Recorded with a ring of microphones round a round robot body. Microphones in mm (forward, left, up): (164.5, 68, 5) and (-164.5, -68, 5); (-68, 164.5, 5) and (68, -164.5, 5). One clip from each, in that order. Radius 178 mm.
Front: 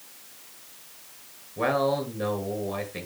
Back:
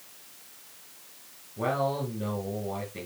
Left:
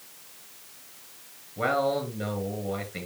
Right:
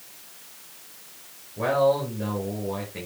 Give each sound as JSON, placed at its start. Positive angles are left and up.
{"t": 1.6, "sound": "a man speaking", "azimuth_deg": 50, "distance_m": 4.5}